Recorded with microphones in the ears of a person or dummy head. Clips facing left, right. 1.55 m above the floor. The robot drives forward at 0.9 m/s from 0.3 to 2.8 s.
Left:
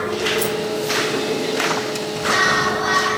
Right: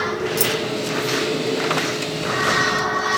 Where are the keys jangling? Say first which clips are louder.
Left 2 dB; 75° right (ahead or behind), 4 m; by 0.5 s 70° right (ahead or behind), 4 m.